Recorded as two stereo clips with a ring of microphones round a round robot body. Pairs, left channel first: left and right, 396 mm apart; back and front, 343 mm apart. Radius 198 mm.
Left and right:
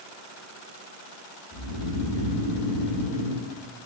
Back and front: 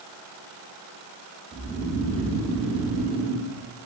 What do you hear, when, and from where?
1.5 s snoring: 80° left, 0.9 m